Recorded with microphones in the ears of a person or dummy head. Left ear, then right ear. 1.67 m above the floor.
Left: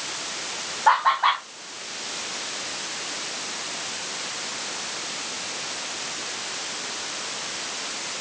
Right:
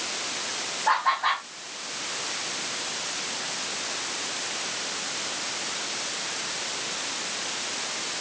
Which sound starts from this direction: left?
Laughter, at 0.9 s.